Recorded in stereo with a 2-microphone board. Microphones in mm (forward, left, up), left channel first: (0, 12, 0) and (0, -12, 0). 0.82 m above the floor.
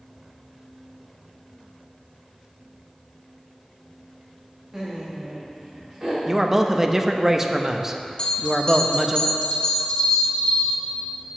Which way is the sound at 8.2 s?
35° left (ahead or behind).